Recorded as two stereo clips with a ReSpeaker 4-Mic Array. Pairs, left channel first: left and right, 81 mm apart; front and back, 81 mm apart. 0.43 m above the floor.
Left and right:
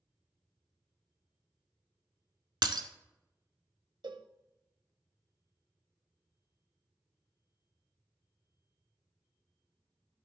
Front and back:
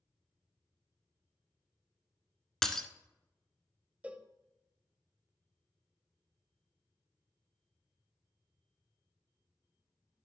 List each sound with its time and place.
2.6 s breaking glass: 85° right, 0.7 m
4.0 s a cowbell: 105° right, 0.6 m